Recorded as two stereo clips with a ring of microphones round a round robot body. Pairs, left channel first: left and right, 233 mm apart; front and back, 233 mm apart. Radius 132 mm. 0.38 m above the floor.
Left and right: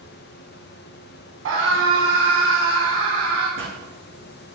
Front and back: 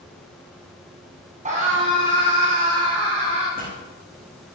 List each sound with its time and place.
1.4 s a scream: 120° right, 4 m; by 3.5 s 115° right, 5.5 m
3.6 s a pop: 125° right, 7 m